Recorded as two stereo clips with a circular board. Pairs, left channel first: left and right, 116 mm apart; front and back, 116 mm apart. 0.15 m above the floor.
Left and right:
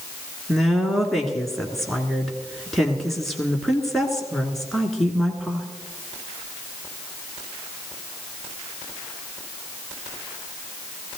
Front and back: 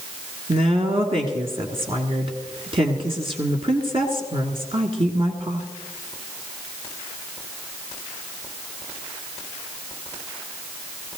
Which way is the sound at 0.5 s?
Straight behind.